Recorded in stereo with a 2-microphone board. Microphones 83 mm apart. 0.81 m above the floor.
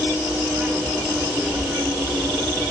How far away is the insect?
About 3.5 m.